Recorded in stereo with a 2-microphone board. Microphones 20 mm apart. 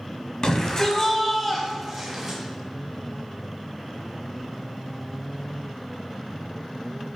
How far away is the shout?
About 1.6 m.